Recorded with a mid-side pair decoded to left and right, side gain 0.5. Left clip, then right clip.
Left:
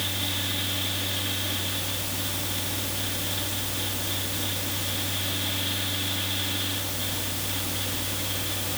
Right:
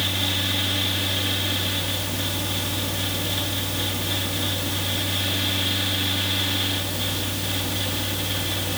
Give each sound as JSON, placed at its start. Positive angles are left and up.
{"t": 0.0, "sound": "a fan", "azimuth_deg": -40}